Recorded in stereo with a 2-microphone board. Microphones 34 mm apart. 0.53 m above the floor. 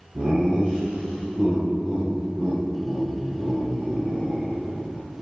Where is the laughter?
40° right (ahead or behind), 2.5 m; by 5.0 s 30° right (ahead or behind), 8 m.